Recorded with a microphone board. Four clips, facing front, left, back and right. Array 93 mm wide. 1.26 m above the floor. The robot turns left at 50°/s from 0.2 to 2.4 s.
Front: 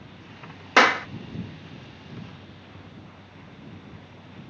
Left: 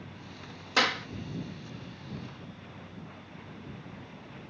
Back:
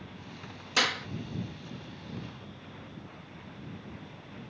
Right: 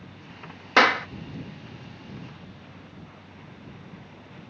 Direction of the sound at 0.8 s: 35° right.